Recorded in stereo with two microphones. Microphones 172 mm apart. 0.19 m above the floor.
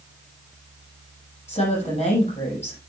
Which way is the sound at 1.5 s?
40° left (ahead or behind).